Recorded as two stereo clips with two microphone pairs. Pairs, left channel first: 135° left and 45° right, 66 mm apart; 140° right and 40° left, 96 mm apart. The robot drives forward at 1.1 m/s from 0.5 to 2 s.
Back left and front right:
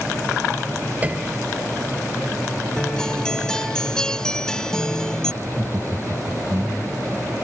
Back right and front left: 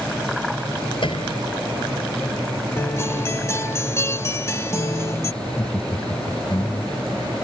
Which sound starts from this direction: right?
Laughter, at 5.4 s.